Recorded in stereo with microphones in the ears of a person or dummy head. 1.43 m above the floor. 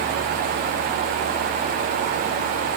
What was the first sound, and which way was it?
Only background noise.